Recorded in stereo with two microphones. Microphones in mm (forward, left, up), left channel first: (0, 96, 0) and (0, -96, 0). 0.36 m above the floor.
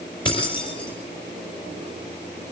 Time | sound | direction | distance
0.2 | keys jangling | 25° left (ahead or behind) | 5.5 m